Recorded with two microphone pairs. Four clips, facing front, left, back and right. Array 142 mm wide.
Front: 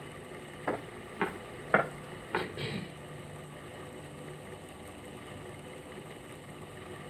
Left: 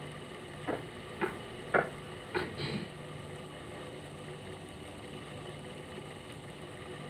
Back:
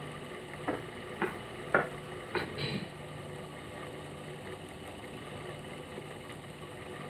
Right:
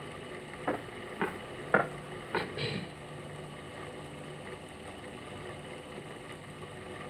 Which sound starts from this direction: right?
A cough, at 2.3 s.